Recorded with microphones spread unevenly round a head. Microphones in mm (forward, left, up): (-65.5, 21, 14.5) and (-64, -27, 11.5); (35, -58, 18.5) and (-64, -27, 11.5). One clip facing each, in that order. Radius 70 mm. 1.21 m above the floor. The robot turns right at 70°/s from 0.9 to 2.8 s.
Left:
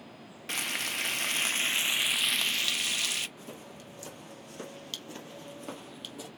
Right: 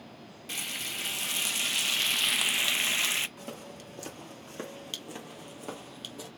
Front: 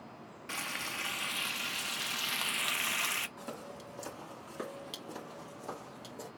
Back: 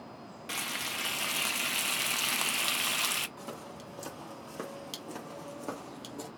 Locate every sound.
0.5 s frying: 90° left, 0.6 m; by 3.3 s 140° right, 0.6 m
3.4 s footsteps: 110° right, 2 m; by 6.3 s 170° left, 2.5 m